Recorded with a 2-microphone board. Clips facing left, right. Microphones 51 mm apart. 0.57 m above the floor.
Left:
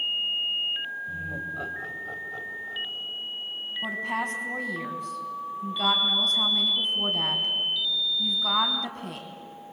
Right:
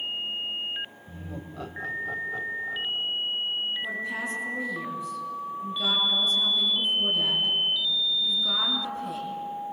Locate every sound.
1.1 s laughter: 10° left (ahead or behind), 3 m; by 3.0 s 10° right (ahead or behind), 3.5 m
3.8 s a woman speaking: 60° left (ahead or behind), 5 m